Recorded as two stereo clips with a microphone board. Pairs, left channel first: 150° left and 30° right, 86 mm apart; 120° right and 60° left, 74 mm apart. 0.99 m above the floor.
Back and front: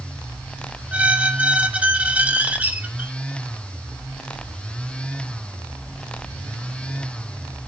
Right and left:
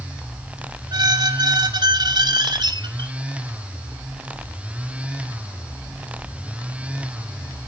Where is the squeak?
45° left, 0.8 m.